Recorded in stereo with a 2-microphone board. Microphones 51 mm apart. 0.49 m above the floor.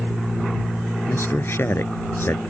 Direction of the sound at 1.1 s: 50° left (ahead or behind).